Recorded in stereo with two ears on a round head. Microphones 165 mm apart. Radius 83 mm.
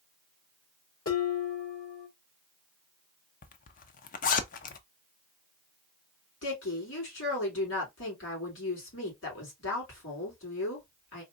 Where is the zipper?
45° left (ahead or behind), 0.6 m.